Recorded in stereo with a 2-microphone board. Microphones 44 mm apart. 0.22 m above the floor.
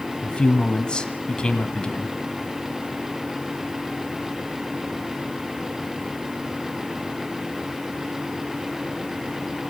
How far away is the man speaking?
About 1.3 m.